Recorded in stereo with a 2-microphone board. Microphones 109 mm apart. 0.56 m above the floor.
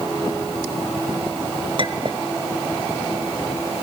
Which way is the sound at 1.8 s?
45° right (ahead or behind).